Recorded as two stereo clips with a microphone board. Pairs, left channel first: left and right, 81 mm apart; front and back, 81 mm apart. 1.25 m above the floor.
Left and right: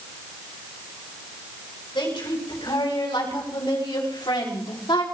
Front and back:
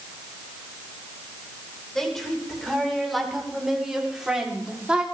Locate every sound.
1.9 s a woman speaking: 85° left, 6 m; by 5.0 s 105° left, 3.5 m